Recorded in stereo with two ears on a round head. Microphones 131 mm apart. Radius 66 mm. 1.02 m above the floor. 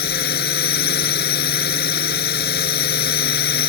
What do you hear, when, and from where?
0.0 s a drone: 75° left (ahead or behind)